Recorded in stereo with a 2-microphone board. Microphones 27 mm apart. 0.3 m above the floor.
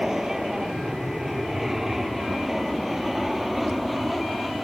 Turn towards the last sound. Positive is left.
turn(degrees=0)  # may be behind; listen again after turning